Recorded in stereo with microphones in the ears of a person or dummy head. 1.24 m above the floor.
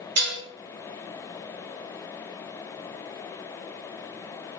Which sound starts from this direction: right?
Dishes clattering, at 0.2 s.